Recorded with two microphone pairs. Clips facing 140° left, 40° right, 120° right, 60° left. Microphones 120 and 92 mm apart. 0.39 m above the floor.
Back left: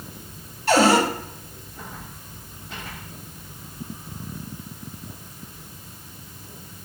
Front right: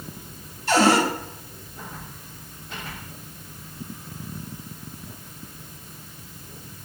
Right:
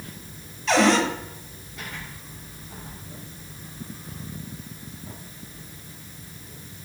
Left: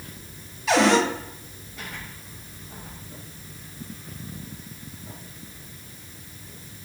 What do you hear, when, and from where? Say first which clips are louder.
0.7 s a cupboard door: back left 1 dB, even; 140° left, 0.9 m